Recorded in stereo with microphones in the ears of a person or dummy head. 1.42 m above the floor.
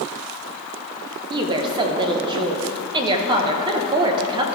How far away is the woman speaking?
About 0.9 m.